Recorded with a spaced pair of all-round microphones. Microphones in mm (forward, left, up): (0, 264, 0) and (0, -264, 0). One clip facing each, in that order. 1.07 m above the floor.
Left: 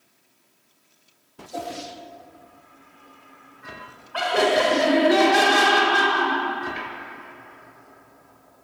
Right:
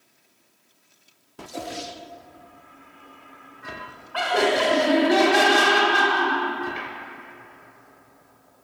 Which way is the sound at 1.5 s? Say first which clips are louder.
Left 1 dB; 65° left (ahead or behind).